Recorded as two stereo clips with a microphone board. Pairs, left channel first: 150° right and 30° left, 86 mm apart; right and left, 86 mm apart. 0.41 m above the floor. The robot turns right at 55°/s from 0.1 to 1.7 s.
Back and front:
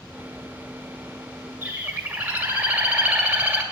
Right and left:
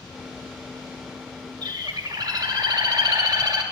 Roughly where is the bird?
Left.